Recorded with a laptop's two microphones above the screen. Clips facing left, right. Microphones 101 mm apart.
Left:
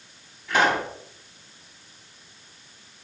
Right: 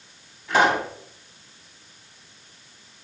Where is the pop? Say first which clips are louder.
Right 2 dB; 30° right (ahead or behind), 2.5 m.